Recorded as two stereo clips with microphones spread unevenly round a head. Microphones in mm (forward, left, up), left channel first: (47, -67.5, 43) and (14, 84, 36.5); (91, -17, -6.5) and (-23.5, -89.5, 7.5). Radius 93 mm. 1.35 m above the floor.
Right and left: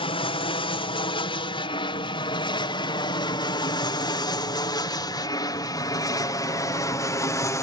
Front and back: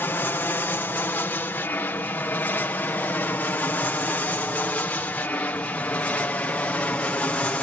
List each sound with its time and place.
0.0 s an aircraft: 35° right; by 7.6 s 30° right